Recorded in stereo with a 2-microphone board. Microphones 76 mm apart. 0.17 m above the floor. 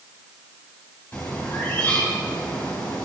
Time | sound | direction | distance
1.1 | a bird | 20° left (ahead or behind) | 1.8 m